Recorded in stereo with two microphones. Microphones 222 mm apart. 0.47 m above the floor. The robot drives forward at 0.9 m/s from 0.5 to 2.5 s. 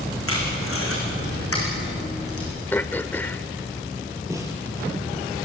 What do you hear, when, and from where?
0.3 s tape being pulled: 75° left (ahead or behind), 7 m; by 2.5 s 90° left, 6.5 m
2.7 s throat clearing: 10° left (ahead or behind), 0.6 m
4.3 s a snare drum: 15° right (ahead or behind), 4.5 m